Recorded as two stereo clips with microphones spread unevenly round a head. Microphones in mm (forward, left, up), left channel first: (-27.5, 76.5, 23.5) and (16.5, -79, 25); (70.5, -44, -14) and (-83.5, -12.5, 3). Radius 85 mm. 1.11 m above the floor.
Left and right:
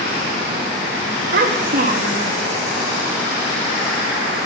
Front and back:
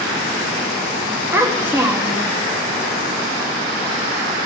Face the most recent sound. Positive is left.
turn(degrees=-115)